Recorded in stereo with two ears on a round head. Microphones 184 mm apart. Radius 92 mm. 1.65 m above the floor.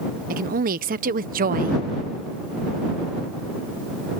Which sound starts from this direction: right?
A woman speaking, at 0.3 s.